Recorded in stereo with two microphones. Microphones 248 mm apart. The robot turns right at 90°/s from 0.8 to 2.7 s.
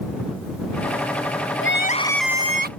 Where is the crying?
125° left; by 2.7 s 140° right.